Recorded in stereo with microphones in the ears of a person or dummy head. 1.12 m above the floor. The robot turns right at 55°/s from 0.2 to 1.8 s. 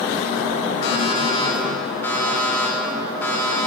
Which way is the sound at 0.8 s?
110° left.